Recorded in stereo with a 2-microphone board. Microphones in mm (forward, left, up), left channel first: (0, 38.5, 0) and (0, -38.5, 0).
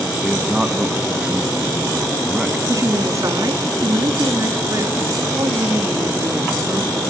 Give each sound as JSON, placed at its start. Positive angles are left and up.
{"t": 0.2, "sound": "a man speaking", "side_deg": -15, "distance_m": 1.4}
{"t": 2.7, "sound": "a woman speaking", "side_deg": -45, "distance_m": 3.0}